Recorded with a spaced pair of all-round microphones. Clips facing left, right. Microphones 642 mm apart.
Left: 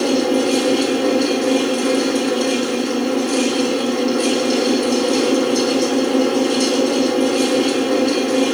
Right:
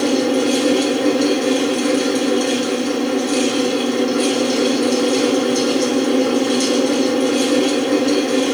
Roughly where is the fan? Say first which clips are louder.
Even; right.